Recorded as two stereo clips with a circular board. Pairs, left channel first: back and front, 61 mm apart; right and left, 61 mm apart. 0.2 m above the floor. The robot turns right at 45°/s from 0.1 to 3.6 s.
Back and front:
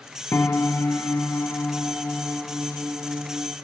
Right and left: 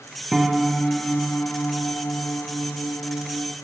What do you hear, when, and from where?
0.3 s a piano: 170° left, 0.7 m; by 3.5 s 45° right, 0.7 m